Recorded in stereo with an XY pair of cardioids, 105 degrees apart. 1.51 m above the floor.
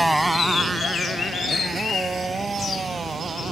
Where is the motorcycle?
Straight ahead; by 3.5 s 25° right.